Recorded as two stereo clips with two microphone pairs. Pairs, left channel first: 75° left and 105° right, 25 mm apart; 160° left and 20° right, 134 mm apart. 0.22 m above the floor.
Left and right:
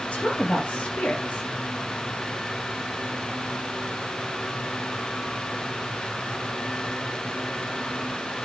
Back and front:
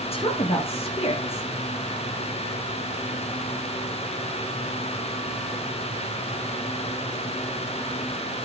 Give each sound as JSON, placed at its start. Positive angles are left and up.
{"t": 0.1, "sound": "a woman speaking", "azimuth_deg": 120, "distance_m": 4.0}